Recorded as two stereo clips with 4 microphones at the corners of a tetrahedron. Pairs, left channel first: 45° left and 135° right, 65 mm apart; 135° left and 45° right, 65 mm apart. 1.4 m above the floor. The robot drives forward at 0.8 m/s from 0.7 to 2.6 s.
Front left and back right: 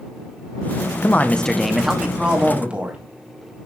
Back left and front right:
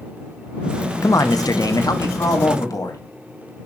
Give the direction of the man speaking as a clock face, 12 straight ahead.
9 o'clock.